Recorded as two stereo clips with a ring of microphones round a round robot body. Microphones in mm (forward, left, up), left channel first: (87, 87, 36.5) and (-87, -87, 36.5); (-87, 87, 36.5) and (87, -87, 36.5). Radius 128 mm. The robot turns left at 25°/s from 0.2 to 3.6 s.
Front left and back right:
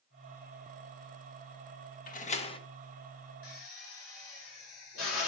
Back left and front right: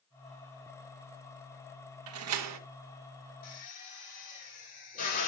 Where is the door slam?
10° right, 1.2 m; by 2.6 s 25° right, 1.2 m.